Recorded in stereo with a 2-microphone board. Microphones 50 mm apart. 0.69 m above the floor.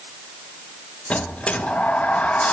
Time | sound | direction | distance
1.1 | a sliding door | 25° left (ahead or behind) | 0.8 m